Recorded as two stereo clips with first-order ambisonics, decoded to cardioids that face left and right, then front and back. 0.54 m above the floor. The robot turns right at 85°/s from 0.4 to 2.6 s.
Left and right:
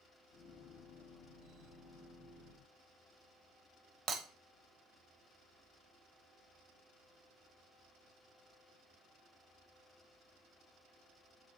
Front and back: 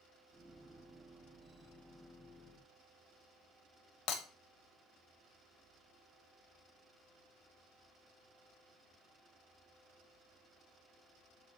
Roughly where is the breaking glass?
Ahead right.